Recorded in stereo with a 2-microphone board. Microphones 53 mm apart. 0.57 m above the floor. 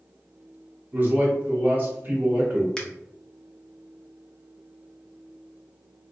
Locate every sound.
0.9 s a man speaking: 40° right (ahead or behind), 1.6 m
2.8 s a finger snap: 15° left (ahead or behind), 0.7 m